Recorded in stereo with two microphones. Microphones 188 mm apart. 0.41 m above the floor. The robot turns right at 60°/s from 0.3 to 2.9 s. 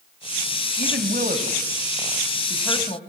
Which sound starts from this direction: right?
A woman speaking, at 0.8 s.